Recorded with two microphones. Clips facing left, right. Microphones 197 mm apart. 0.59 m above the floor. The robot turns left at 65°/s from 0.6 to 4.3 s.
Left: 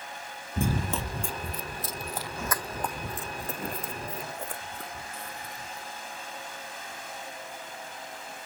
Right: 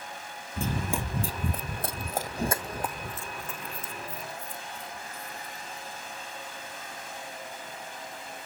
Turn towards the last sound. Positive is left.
turn(degrees=80)